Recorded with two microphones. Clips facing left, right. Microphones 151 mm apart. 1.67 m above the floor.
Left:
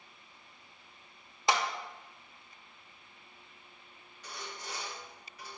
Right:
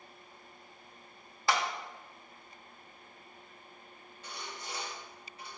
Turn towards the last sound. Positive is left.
turn(degrees=-25)  # may be behind; listen again after turning